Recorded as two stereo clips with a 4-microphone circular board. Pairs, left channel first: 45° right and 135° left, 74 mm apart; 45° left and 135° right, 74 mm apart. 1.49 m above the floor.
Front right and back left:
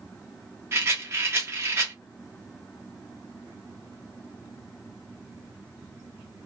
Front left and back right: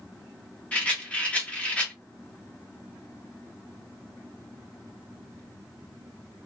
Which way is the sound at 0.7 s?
105° left.